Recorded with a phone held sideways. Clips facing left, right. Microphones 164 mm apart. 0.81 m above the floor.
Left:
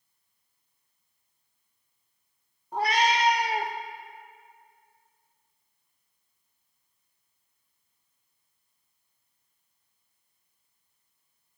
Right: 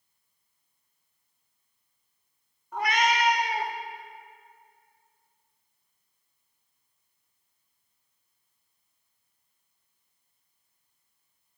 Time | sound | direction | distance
2.7 | a cat meowing | 30° left (ahead or behind) | 0.5 m